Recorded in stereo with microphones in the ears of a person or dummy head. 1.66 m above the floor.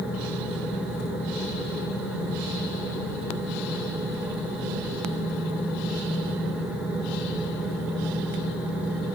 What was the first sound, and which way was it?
Only background noise.